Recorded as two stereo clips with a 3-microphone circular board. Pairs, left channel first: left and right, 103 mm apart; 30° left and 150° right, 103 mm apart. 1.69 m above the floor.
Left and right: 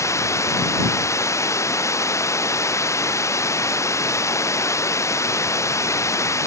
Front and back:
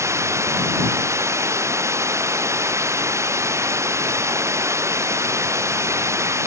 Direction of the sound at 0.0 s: 150° left.